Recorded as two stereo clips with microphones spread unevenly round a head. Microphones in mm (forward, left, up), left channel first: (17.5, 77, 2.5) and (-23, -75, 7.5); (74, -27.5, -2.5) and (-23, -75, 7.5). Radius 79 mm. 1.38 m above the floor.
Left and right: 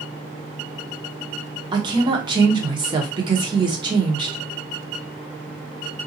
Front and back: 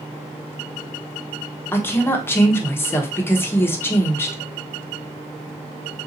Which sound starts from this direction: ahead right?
A woman speaking, at 1.7 s.